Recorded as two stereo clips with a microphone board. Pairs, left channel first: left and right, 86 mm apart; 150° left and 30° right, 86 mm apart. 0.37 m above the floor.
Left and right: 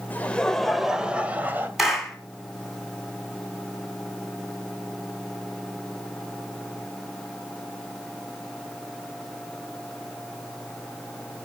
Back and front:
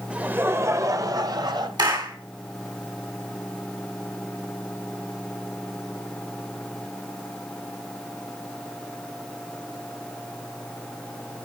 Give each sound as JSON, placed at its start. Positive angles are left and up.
{"t": 0.1, "sound": "laughter", "azimuth_deg": 35, "distance_m": 1.1}
{"t": 1.8, "sound": "a clap", "azimuth_deg": -5, "distance_m": 3.0}